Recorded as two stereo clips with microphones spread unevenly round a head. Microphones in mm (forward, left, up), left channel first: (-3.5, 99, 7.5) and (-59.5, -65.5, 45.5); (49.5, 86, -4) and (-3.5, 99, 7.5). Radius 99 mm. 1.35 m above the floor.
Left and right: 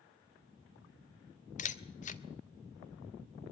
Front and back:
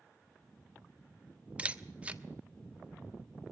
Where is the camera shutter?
120° left, 1.1 m.